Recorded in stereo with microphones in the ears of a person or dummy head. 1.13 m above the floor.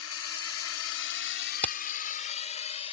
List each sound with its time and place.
0.0 s a drone: 65° left (ahead or behind); by 2.9 s 35° left (ahead or behind)
1.6 s hammering: 10° left (ahead or behind)